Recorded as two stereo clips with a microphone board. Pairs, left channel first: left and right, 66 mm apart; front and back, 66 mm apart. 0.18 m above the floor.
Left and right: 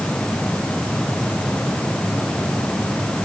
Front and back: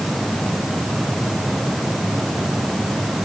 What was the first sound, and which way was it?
Only background noise.